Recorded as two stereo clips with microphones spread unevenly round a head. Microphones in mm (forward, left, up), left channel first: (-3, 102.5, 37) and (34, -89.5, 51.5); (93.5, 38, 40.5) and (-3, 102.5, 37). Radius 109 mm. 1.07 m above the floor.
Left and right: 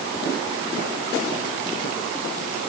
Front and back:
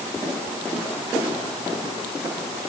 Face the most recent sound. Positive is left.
No sound to turn to.